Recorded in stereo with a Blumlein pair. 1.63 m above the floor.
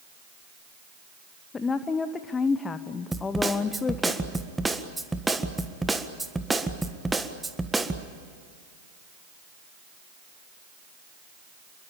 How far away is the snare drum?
About 1.6 m.